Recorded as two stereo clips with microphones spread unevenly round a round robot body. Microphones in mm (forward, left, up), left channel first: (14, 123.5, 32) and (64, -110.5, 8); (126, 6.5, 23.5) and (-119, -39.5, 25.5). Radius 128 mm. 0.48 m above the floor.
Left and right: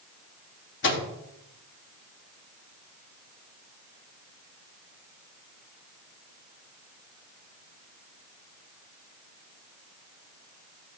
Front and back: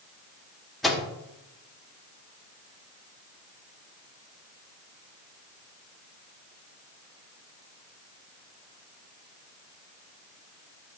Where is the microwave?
100° left, 1.2 m.